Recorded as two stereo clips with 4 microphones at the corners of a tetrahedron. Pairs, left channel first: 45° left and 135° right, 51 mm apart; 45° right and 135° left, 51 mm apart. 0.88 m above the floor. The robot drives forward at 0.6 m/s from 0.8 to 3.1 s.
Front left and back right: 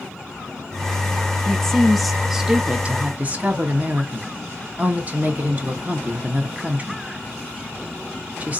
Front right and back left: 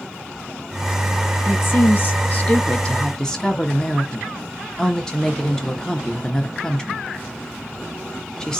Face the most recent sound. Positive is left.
turn(degrees=-115)